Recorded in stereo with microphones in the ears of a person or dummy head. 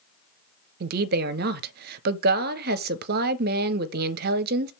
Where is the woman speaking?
50° right (ahead or behind), 0.8 m.